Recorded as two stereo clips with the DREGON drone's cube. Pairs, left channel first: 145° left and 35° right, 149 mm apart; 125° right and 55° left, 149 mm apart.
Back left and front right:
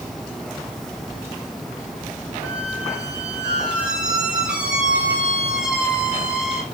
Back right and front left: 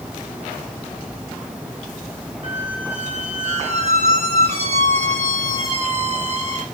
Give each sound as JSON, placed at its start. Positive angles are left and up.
{"t": 2.4, "sound": "a squeak", "azimuth_deg": 45, "distance_m": 1.0}